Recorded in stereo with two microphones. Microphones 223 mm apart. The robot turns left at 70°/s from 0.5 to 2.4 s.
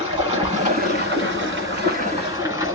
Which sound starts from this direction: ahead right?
Running water, at 0.0 s.